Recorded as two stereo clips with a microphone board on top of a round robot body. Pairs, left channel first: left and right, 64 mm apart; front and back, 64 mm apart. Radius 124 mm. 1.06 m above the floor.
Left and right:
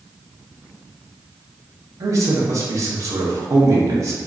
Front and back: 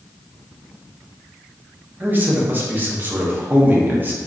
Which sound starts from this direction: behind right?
A man speaking, at 2.0 s.